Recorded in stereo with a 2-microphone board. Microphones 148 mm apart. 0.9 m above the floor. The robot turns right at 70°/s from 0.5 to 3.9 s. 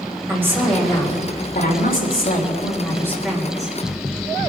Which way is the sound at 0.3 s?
15° right.